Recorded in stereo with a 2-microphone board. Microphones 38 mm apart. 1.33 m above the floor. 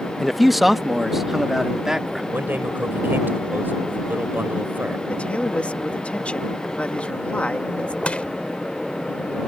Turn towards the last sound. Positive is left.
turn(degrees=35)  # may be behind; listen again after turning